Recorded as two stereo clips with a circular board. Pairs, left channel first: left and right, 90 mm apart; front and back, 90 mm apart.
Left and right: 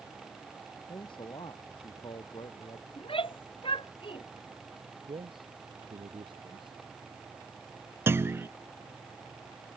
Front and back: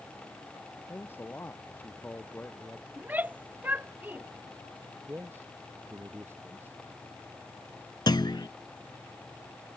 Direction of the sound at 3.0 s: 110° left.